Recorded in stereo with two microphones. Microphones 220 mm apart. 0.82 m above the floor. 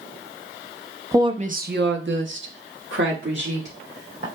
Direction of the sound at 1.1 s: 10° right (ahead or behind).